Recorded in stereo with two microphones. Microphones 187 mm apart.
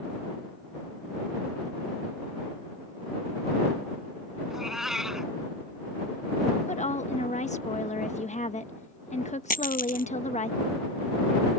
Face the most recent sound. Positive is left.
turn(degrees=50)  # may be behind; listen again after turning